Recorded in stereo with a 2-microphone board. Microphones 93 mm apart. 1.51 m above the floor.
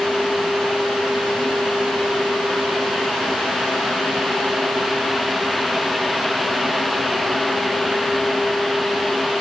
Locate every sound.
Only background noise.